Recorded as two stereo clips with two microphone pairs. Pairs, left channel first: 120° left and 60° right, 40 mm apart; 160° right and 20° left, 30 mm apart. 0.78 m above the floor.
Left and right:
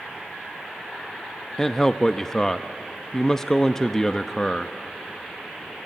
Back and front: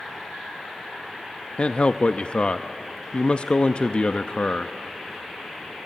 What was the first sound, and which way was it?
A man speaking, 170° right.